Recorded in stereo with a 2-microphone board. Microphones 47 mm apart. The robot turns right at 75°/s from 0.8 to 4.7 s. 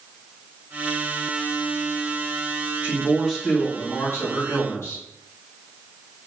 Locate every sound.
2.8 s a man speaking: 35° right, 1.3 m; by 5.0 s 105° left, 1.3 m